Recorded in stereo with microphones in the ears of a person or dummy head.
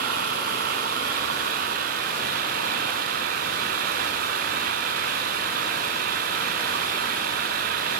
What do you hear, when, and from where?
0.0 s an engine running: 60° right (ahead or behind)